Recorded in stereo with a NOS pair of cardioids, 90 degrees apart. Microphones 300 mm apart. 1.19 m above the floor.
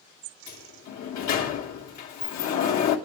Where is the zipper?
No zipper in this recording.